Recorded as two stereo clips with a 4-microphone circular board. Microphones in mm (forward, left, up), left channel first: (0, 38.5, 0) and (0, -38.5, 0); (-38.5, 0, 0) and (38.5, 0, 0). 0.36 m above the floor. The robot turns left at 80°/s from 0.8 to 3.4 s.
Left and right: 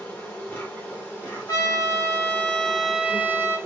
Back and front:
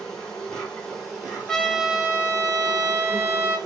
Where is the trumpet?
105° left, 1.0 m; by 3.6 s 50° right, 1.0 m.